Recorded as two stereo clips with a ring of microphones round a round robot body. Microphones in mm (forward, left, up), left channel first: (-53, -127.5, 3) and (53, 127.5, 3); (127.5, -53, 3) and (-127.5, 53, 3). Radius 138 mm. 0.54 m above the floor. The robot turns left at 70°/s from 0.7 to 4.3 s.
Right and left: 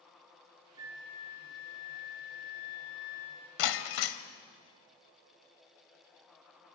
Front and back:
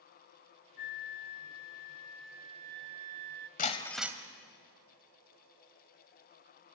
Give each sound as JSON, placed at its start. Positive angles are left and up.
{"t": 0.8, "sound": "a flute", "azimuth_deg": -10, "distance_m": 0.6}
{"t": 3.6, "sound": "breaking glass", "azimuth_deg": -85, "distance_m": 1.2}